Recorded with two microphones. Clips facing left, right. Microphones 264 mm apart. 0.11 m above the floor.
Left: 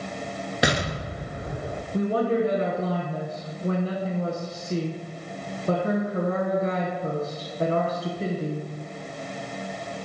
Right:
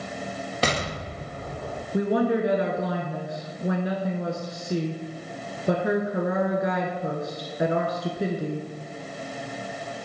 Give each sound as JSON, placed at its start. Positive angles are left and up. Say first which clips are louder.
{"t": 0.6, "sound": "an explosion", "louder": "left 2 dB", "side_deg": 15, "distance_m": 0.5}
{"t": 1.9, "sound": "a woman speaking", "louder": "right 1 dB", "side_deg": -15, "distance_m": 1.1}